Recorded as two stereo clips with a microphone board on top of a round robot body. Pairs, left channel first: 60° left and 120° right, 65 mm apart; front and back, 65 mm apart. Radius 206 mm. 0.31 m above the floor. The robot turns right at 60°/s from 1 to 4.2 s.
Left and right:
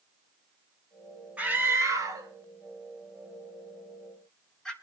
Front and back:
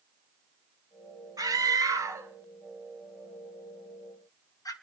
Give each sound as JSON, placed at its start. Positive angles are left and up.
{"t": 1.4, "sound": "a scream", "azimuth_deg": 170, "distance_m": 4.5}